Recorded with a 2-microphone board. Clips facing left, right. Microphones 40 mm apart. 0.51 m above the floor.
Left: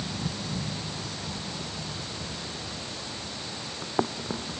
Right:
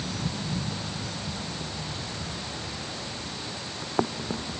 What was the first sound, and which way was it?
Only background noise.